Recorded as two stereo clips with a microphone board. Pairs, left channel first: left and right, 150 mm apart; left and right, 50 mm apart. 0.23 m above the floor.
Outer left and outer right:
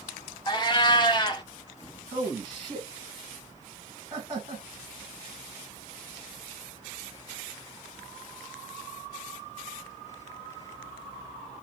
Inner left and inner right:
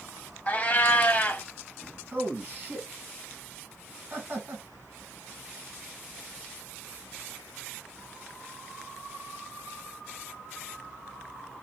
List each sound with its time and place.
0.5 s a cat meowing: 30° left (ahead or behind), 0.5 m
2.1 s a man speaking: 35° right (ahead or behind), 2 m